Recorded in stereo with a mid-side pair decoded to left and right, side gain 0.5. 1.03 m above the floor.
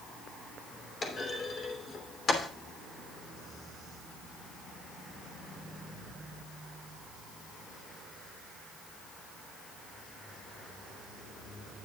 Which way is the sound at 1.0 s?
40° left.